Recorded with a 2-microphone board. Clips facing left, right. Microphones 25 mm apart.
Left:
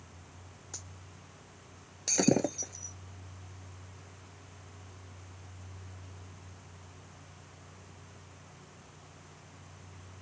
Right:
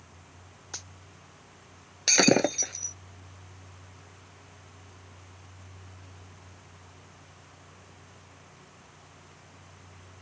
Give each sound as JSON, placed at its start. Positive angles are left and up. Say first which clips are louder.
{"t": 0.7, "sound": "a dropped coin", "louder": "right 7 dB", "side_deg": -45}
{"t": 2.1, "sound": "breaking glass", "louder": "right 6 dB", "side_deg": -60}